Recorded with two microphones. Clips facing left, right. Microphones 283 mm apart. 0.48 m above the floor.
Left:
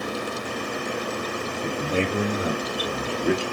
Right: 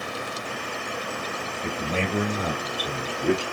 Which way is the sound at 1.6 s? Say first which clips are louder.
Left 3 dB; 35° left (ahead or behind).